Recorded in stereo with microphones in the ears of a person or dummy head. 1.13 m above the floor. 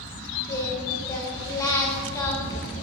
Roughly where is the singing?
Centre.